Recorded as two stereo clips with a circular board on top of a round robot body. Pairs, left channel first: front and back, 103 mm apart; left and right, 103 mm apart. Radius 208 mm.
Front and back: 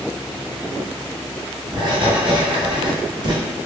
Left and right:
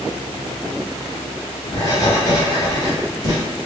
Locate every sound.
1.7 s writing: 140° left, 1.6 m